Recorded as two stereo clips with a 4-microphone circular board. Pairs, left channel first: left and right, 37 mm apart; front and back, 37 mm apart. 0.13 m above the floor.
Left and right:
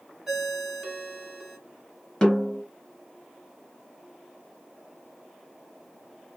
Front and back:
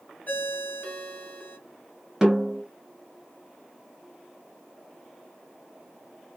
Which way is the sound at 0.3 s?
15° right.